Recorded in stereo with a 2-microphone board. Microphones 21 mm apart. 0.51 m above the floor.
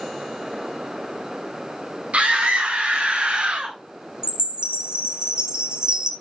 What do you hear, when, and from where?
2.1 s a scream: 80° right, 4.5 m; by 3.8 s 60° right (ahead or behind), 2.5 m
4.2 s a chime: 40° right (ahead or behind), 0.9 m